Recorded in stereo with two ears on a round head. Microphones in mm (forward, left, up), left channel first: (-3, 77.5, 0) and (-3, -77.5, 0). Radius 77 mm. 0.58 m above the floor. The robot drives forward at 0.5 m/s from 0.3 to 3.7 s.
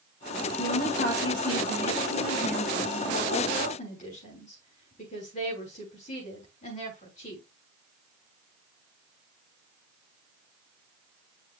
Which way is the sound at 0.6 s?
55° left (ahead or behind).